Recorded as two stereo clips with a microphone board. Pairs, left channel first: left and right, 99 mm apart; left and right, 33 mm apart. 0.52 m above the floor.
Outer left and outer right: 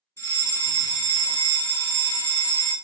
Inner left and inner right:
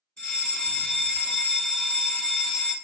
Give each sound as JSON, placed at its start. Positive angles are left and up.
{"t": 0.2, "sound": "a fire alarm", "side_deg": 25, "distance_m": 1.9}